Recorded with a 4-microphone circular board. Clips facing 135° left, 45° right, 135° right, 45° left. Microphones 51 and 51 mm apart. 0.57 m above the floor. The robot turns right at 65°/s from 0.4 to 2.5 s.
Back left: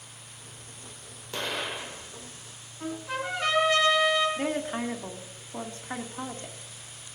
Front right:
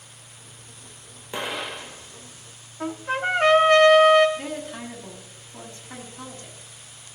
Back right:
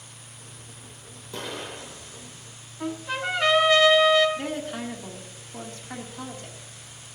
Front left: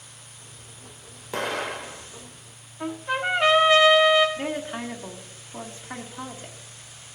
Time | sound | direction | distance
1.3 | an explosion | 25° left | 0.8 m
2.8 | a trumpet | 30° right | 1.6 m
4.4 | a woman speaking | 115° left | 1.5 m